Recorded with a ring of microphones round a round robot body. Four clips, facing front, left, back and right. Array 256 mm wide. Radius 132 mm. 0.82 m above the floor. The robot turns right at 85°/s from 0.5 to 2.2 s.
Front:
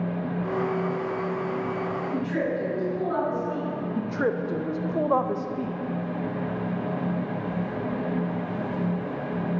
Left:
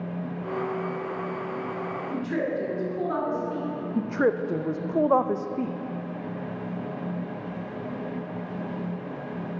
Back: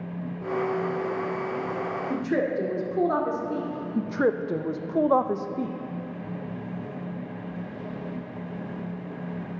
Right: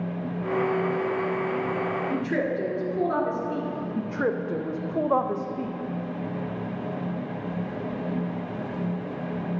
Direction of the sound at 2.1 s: 170° right.